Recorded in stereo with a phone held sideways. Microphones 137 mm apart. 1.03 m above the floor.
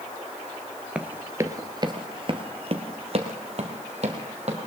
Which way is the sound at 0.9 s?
10° right (ahead or behind).